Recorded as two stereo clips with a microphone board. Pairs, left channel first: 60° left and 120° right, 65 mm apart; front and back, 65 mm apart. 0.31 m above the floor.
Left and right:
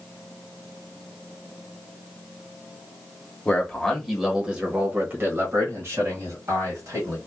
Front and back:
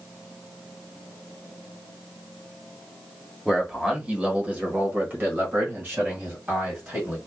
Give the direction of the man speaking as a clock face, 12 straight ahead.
8 o'clock.